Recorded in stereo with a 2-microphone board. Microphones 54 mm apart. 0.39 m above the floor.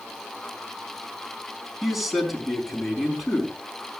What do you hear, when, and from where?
1.8 s a man speaking: centre (ahead or behind), 4.5 m